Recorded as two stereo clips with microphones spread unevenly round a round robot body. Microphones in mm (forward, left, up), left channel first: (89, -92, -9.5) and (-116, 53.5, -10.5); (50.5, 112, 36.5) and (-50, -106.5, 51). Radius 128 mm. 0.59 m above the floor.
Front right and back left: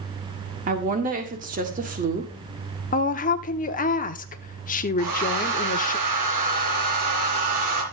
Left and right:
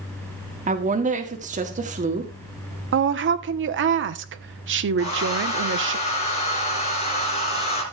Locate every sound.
0.7 s a woman speaking: 170° right, 1.6 m
2.9 s a woman speaking: 85° right, 1.0 m
5.0 s a hair dryer: 130° left, 4.5 m